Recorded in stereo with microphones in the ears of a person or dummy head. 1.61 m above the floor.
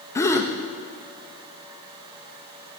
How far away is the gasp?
About 0.8 m.